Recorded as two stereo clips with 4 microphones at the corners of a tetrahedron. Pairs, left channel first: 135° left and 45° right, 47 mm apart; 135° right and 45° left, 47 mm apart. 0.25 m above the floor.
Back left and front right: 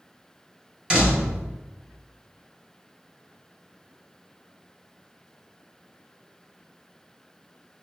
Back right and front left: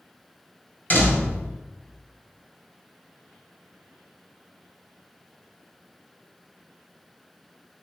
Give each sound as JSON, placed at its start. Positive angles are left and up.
{"t": 0.9, "sound": "a door slam", "azimuth_deg": -110, "distance_m": 1.3}